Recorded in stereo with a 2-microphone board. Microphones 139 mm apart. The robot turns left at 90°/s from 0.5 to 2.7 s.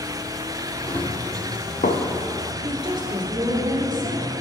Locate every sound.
0.9 s running footsteps: 5° left (ahead or behind), 1.6 m; by 2.0 s 55° left (ahead or behind), 0.9 m
2.6 s a woman speaking: 35° right (ahead or behind), 1.4 m